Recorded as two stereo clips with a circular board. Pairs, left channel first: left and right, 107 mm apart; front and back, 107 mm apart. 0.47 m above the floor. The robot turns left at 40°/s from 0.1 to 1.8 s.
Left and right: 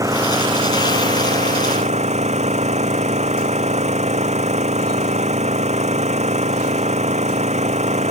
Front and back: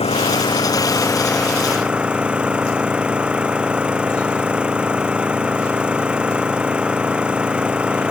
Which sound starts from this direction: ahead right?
An engine running, at 0.0 s.